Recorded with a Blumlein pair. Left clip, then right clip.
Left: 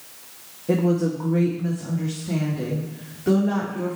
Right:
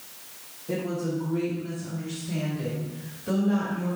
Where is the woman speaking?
25° left, 0.9 m; by 4.0 s 50° left, 2.5 m.